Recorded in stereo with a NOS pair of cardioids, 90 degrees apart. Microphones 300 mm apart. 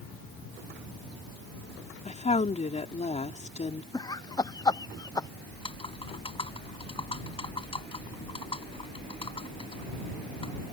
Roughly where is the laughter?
Ahead.